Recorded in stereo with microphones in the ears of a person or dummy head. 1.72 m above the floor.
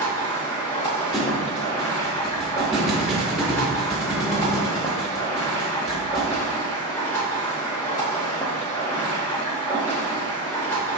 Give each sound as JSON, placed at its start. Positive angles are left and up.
{"t": 0.0, "sound": "running water", "side_deg": 20, "distance_m": 1.0}
{"t": 1.1, "sound": "a thud", "side_deg": 0, "distance_m": 1.3}